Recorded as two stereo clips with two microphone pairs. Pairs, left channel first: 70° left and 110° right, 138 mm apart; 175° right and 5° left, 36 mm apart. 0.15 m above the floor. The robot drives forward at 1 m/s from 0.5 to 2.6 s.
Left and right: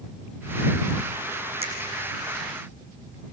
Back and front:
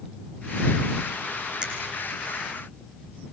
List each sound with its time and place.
1.6 s a finger snap: 60° right, 6 m